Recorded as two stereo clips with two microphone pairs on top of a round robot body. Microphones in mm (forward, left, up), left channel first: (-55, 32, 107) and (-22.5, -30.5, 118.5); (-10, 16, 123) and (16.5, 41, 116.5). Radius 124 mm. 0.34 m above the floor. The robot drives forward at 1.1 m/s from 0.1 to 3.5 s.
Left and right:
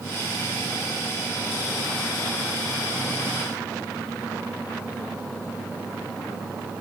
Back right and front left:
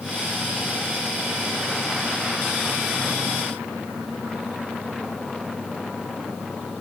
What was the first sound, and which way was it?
Only background noise.